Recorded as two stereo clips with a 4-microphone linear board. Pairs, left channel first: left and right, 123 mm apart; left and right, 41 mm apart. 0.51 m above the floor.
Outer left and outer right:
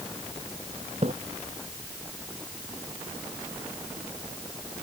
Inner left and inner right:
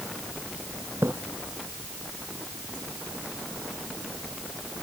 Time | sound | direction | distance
1.0 | a splash | 65° right (ahead or behind) | ?